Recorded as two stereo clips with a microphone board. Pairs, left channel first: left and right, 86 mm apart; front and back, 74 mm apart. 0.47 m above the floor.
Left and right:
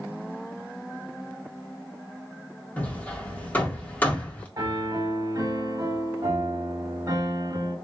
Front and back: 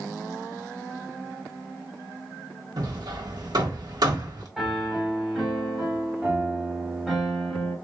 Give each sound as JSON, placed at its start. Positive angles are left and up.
{"t": 2.8, "sound": "hammering", "azimuth_deg": 160, "distance_m": 1.3}
{"t": 4.6, "sound": "a piano", "azimuth_deg": -95, "distance_m": 1.5}